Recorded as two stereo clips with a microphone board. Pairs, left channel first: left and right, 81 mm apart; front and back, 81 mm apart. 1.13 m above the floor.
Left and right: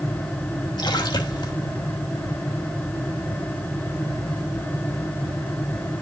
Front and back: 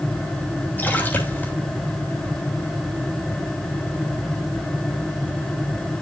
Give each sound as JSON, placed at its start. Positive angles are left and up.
{"t": 0.8, "sound": "a splash", "azimuth_deg": 65, "distance_m": 2.5}